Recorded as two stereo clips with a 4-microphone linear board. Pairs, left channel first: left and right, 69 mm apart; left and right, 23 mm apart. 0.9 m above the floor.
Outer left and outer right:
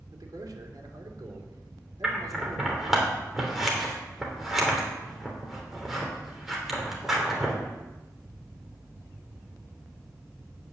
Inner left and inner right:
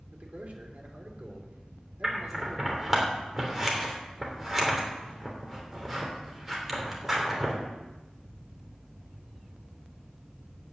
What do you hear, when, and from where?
0.1 s a man speaking: 70° right (ahead or behind), 3 m
2.0 s scissors: 5° right (ahead or behind), 3 m